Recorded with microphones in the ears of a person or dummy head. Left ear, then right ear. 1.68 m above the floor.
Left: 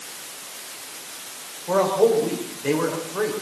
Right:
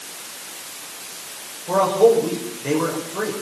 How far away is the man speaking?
About 7 m.